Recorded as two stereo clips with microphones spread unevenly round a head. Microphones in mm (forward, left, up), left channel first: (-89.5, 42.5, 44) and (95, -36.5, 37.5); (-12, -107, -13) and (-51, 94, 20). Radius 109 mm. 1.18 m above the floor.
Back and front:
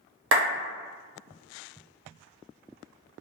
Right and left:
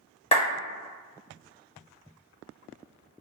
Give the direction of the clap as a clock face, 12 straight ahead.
1 o'clock.